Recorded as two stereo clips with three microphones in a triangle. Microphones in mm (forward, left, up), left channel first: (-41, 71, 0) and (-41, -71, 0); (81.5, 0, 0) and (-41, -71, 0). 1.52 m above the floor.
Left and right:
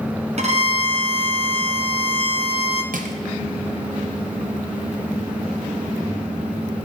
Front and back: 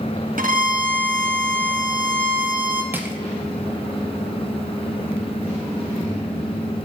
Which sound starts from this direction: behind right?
A violin, at 0.4 s.